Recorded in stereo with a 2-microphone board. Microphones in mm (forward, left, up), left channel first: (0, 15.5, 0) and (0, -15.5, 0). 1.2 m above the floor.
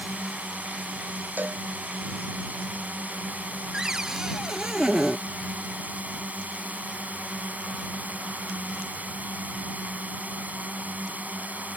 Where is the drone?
60° right (ahead or behind).